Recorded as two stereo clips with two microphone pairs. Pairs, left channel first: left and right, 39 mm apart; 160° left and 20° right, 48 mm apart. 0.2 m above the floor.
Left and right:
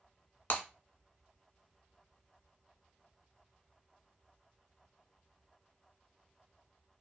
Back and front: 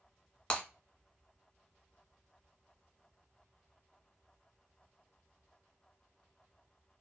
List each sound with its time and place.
0.5 s breaking glass: 100° left, 0.8 m